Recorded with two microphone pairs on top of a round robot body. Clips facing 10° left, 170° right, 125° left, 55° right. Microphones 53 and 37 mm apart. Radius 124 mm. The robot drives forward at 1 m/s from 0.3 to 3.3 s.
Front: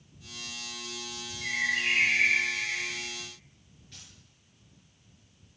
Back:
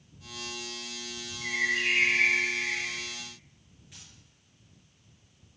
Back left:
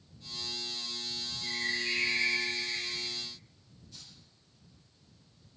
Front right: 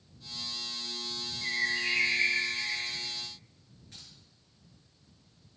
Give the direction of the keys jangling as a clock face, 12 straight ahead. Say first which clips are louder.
Front 1 dB, front right 1 dB; 3 o'clock.